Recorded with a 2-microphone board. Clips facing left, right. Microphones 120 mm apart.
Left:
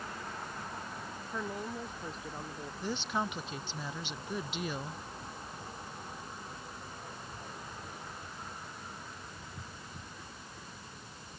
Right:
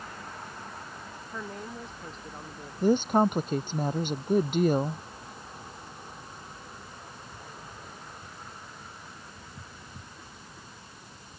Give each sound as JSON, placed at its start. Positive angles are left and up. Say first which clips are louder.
{"t": 1.3, "sound": "a woman speaking", "louder": "left 1 dB", "side_deg": 5}
{"t": 2.8, "sound": "a woman speaking", "louder": "right 13 dB", "side_deg": -50}